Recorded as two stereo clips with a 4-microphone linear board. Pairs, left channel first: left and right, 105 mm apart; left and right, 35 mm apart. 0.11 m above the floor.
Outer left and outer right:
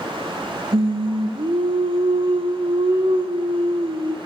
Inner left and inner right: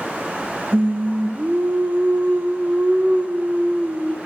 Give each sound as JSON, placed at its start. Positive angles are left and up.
{"t": 0.7, "sound": "singing", "side_deg": -55, "distance_m": 1.6}